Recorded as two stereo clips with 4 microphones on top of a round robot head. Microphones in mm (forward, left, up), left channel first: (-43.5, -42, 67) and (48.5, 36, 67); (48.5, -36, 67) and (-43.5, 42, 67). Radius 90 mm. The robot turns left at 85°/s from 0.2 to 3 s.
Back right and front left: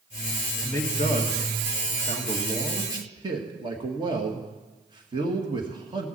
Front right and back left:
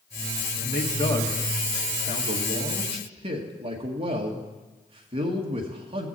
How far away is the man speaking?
About 1.8 m.